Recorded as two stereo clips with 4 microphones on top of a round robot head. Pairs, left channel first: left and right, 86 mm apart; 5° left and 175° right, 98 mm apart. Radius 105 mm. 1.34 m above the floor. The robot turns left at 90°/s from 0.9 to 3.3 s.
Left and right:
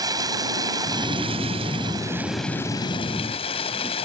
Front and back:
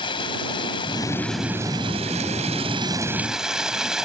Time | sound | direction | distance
0.0 | running water | 45° right | ?